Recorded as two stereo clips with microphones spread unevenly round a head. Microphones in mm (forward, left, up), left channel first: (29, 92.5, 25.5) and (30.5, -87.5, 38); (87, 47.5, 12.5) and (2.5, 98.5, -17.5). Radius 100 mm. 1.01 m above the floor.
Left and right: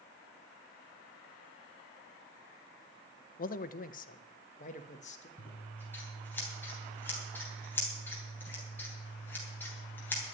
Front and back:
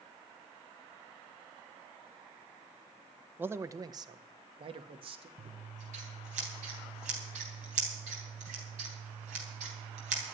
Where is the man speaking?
100° left, 0.7 m; by 5.3 s 145° left, 1.8 m.